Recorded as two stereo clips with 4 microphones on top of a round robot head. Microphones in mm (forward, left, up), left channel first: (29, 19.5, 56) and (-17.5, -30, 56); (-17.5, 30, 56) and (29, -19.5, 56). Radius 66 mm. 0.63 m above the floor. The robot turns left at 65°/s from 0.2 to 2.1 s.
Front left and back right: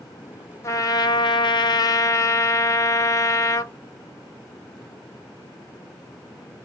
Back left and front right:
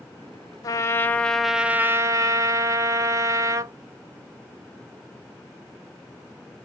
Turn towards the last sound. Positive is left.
turn(degrees=0)